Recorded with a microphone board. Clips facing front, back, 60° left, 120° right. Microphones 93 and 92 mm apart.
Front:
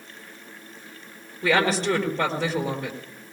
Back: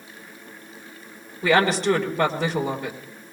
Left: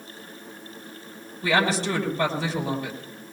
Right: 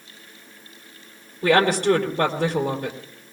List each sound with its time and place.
1.4 s a woman speaking: 90° right, 5 m